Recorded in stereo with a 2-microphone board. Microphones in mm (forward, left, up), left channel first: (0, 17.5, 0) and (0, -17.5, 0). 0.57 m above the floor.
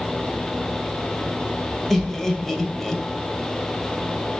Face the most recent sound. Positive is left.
turn(degrees=10)  # may be behind; listen again after turning